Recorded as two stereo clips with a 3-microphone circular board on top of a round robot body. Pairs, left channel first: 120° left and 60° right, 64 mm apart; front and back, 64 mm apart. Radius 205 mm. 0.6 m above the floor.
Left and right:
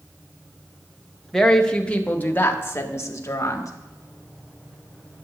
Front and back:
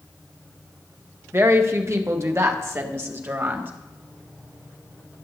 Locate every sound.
1.3 s a woman speaking: 155° right, 1.5 m; by 3.7 s 135° left, 1.9 m